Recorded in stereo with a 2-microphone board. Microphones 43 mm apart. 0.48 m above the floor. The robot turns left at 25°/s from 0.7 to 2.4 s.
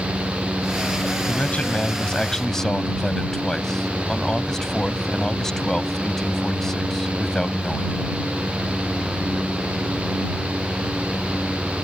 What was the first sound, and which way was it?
A man speaking, 40° left (ahead or behind).